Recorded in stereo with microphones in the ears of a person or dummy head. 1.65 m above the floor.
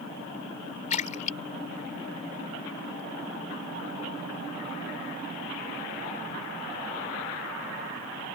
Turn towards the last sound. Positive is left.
turn(degrees=40)  # may be behind; listen again after turning